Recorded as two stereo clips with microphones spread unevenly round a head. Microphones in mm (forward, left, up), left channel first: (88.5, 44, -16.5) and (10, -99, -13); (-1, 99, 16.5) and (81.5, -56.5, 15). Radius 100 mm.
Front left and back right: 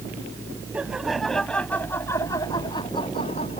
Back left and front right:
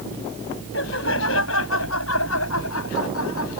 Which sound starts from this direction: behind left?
Laughter, at 0.7 s.